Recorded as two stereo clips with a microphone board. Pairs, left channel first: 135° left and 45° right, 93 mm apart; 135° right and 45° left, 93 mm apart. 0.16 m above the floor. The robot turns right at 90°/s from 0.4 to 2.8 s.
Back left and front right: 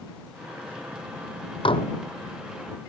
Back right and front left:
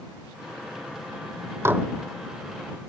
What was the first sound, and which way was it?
Dishes clattering, 105° left.